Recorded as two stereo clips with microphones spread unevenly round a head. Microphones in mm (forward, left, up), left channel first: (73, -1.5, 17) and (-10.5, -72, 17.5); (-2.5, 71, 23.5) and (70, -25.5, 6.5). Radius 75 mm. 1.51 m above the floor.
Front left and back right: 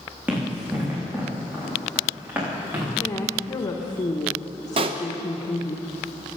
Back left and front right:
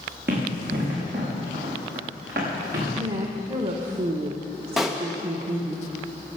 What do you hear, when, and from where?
0.3 s running footsteps: 70° right, 5.5 m
3.0 s a woman speaking: 15° right, 1.2 m
4.8 s a pop: 150° right, 0.7 m